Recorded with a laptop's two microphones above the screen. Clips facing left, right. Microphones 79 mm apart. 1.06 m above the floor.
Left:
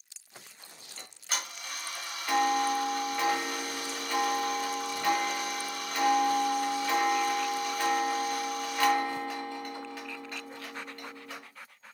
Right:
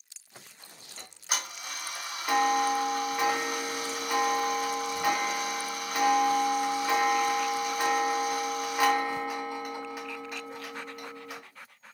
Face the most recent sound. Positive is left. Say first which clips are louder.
# right 2 dB
turn(degrees=-15)  # may be behind; listen again after turning